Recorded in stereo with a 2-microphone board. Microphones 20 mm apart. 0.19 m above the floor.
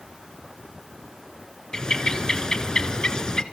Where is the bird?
35° left (ahead or behind), 1.3 m.